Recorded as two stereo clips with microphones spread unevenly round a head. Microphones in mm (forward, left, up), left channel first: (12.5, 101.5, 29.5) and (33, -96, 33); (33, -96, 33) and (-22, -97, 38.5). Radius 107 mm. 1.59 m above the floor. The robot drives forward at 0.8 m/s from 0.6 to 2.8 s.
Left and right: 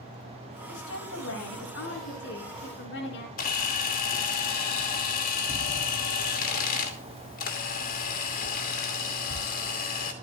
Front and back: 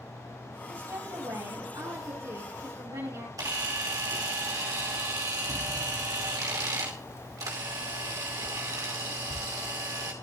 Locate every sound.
0.7 s a woman speaking: 130° left, 9 m; by 3.3 s 135° left, 10 m
3.4 s a camera shutter: 150° left, 2.5 m